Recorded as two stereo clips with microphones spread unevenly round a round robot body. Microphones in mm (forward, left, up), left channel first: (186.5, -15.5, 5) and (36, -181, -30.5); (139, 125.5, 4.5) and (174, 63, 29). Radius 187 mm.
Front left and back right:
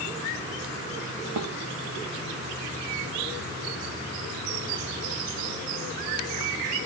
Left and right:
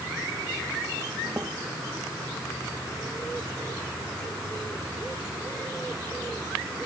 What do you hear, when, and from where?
1.4 s a snare drum: 145° right